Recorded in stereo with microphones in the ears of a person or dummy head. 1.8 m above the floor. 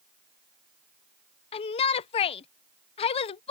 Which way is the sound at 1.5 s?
35° left (ahead or behind).